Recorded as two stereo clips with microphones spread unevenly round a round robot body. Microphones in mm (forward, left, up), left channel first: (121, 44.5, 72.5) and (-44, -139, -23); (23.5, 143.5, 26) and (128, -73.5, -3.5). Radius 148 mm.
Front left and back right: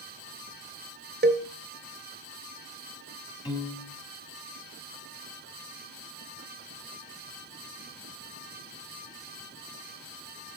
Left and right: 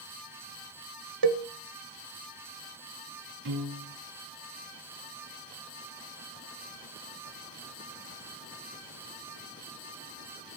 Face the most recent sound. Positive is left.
turn(degrees=-35)